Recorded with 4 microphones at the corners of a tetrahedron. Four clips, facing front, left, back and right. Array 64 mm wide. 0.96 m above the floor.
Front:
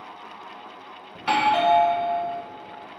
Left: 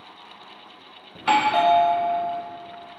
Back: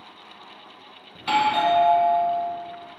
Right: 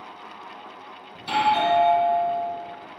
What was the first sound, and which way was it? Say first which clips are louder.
A doorbell: left 2 dB, even; 80° left.